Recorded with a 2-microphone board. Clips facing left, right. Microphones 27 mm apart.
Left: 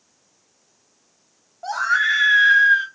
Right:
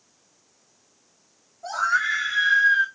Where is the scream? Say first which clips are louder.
Left 3 dB; 45° left (ahead or behind), 2 m.